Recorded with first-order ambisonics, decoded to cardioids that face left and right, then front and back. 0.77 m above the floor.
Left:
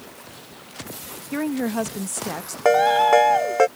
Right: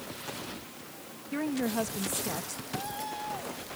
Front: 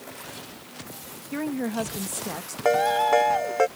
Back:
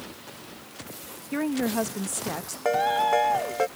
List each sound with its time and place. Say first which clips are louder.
1.3 s a woman speaking: left 6 dB, back 2 dB; 110° left
2.6 s a ringtone: left 25 dB, front 2 dB; 80° left